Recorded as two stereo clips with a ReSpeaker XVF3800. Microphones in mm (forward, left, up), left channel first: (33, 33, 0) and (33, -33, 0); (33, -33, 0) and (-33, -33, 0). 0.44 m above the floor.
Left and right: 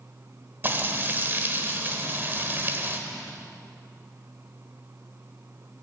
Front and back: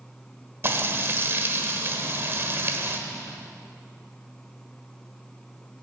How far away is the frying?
About 1.4 m.